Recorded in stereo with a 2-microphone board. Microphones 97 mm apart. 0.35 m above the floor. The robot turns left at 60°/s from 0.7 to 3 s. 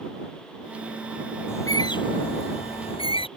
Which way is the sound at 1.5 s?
25° left (ahead or behind).